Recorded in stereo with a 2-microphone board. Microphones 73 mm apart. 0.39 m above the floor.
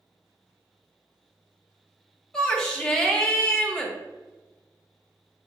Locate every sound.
2.3 s a shout: 10° left (ahead or behind), 0.8 m